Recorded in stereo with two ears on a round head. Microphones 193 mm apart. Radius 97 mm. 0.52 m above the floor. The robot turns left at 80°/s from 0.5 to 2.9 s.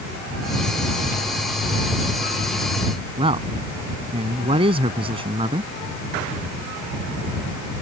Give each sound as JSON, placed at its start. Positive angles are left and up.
{"t": 3.2, "sound": "a man speaking", "side_deg": -25}